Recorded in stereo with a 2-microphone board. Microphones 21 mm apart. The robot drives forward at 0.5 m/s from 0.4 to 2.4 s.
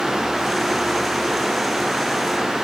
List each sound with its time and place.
Only background noise.